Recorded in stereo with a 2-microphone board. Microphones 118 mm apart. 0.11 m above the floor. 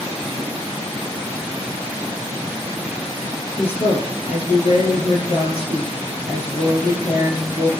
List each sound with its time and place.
3.6 s a woman speaking: 55° left (ahead or behind), 2.5 m